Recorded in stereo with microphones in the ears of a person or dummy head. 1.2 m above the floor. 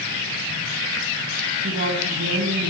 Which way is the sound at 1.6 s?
45° right (ahead or behind).